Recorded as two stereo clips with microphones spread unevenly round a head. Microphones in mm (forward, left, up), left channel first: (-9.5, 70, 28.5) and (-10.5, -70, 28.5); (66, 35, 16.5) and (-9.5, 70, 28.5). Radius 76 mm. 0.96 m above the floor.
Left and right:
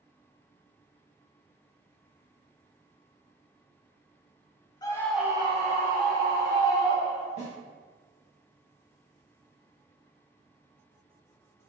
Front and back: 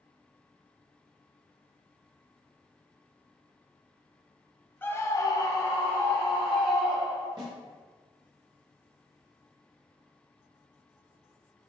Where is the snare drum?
130° left, 1.4 m.